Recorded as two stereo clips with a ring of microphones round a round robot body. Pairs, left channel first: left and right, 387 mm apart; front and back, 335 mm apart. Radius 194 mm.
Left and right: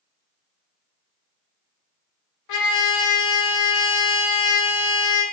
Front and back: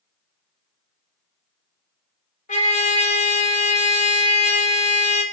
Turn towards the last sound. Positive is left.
turn(degrees=60)